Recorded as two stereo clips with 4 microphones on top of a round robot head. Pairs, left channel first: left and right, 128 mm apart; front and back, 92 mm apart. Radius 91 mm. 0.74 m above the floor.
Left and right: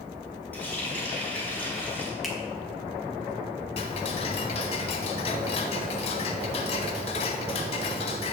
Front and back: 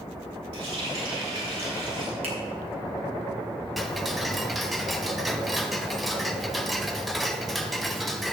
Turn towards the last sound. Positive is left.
turn(degrees=90)